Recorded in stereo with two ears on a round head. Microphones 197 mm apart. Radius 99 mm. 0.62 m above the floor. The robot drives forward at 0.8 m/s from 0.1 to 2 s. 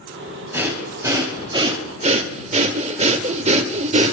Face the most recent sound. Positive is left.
turn(degrees=-30)  # may be behind; listen again after turning